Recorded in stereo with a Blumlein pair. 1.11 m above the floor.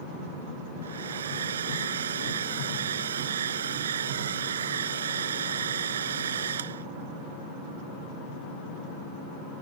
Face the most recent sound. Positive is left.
turn(degrees=-65)